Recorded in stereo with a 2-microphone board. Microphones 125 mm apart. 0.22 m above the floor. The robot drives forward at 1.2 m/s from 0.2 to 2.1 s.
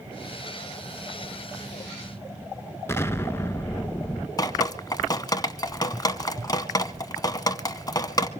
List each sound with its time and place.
2.9 s an explosion: 20° left (ahead or behind), 0.7 m
4.4 s dripping: 30° left (ahead or behind), 0.8 m